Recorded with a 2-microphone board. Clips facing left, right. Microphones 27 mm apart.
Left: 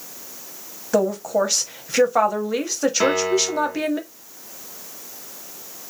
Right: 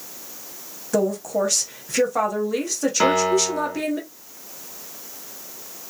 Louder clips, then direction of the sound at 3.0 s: Right 3 dB; 15° right (ahead or behind).